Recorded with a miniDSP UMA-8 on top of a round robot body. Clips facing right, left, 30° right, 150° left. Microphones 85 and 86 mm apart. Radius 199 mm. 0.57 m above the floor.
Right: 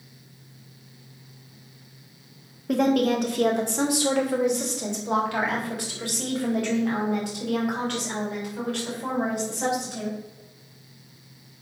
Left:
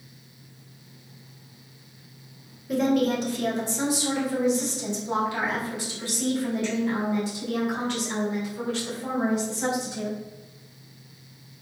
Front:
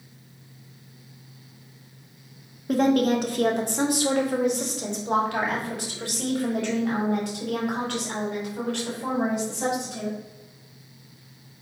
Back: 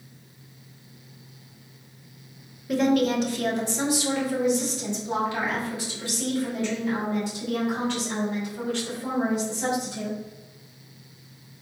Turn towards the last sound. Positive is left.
turn(degrees=-50)